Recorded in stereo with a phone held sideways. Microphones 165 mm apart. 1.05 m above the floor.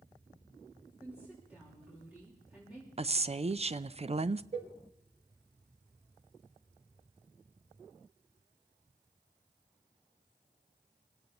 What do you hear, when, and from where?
1.0 s a woman speaking: 10° right (ahead or behind), 4 m
3.0 s a woman speaking: 40° right (ahead or behind), 0.5 m
4.5 s a cowbell: 40° right (ahead or behind), 1.5 m